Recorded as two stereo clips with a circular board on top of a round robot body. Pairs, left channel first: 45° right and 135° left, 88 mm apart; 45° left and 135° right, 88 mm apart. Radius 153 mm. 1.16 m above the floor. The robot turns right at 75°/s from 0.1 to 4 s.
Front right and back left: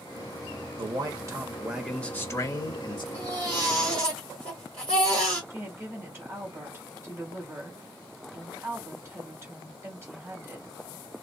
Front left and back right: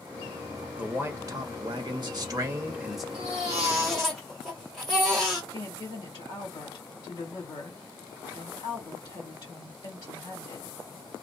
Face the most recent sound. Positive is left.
turn(degrees=75)